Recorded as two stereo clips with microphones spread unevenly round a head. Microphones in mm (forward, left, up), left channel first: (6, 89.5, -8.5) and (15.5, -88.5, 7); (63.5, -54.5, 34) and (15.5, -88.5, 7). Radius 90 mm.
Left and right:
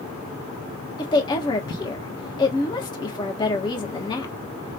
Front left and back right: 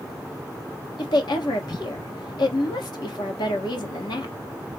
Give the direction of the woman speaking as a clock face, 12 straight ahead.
11 o'clock.